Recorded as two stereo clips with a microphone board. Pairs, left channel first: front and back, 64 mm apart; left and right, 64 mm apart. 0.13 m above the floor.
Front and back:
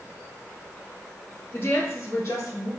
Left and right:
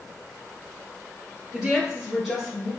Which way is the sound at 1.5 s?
20° right.